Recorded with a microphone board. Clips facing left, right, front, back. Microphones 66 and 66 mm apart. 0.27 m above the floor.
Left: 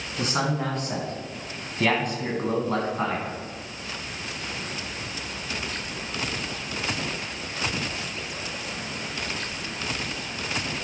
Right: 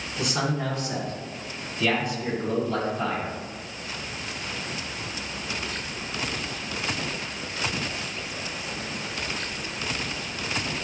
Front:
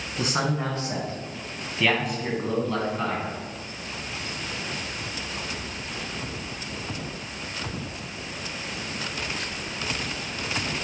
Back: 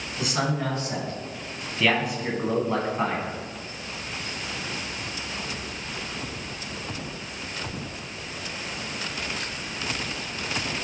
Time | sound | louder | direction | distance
0.2 | a man speaking | left 1 dB, front 1 dB | 45° left | 2.5 m